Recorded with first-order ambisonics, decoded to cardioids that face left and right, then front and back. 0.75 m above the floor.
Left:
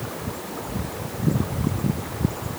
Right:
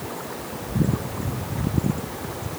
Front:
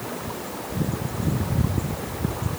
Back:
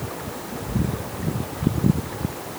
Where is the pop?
I don't hear a pop.